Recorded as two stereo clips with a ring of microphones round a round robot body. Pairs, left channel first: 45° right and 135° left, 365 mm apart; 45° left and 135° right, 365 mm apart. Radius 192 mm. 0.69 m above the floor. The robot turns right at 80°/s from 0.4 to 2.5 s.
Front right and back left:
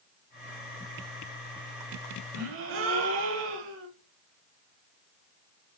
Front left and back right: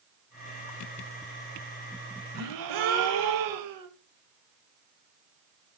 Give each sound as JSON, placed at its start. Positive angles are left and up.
{"t": 2.4, "sound": "a gasp", "azimuth_deg": 180, "distance_m": 0.7}